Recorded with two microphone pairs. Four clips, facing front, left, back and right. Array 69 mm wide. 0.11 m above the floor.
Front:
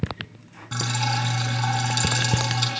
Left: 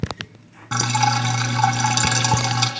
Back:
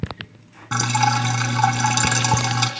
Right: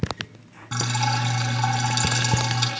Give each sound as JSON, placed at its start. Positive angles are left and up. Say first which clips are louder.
{"t": 0.7, "sound": "dripping", "louder": "left 6 dB, back 7 dB", "azimuth_deg": 135, "distance_m": 4.0}